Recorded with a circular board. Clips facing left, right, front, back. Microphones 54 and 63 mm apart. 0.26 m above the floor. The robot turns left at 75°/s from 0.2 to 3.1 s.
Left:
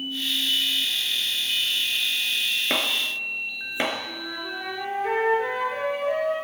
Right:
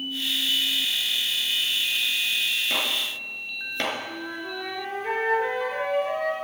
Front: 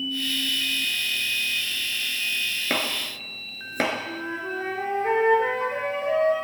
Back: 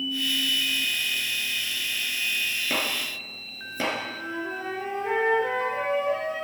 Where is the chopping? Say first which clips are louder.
Left 2 dB, front 1 dB; 45° left, 3 m; by 3.9 s 15° left, 3 m.